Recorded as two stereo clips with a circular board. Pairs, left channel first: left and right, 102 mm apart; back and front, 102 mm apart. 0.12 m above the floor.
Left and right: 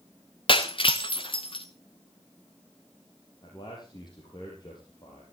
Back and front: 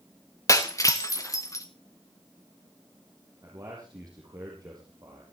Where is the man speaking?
50° left, 4.5 m.